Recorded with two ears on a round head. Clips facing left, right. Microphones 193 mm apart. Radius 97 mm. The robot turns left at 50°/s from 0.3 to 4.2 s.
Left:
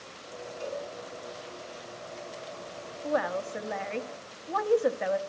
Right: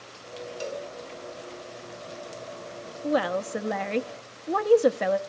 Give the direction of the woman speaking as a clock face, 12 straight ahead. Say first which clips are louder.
Right 4 dB; 2 o'clock.